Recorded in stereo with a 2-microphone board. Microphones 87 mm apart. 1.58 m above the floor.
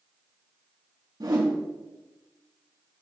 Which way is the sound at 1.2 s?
55° right (ahead or behind).